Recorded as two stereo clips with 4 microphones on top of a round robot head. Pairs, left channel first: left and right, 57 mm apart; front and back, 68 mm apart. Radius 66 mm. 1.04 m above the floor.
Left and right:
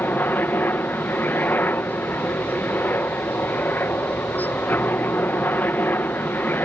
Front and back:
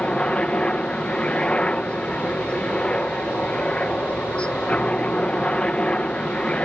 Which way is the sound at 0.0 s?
65° left.